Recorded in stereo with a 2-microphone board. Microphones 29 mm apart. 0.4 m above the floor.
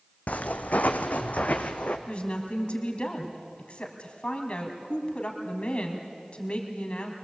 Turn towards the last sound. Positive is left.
turn(degrees=45)  # may be behind; listen again after turning